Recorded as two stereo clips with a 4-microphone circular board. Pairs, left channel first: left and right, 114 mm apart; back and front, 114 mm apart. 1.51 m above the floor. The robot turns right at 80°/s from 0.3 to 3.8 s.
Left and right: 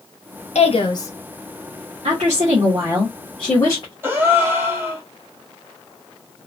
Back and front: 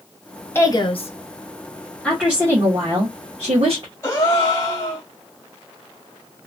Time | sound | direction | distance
0.6 | a woman speaking | 110° left | 0.9 m
2.0 | a woman speaking | 95° right | 1.1 m
4.0 | a gasp | 145° right | 1.3 m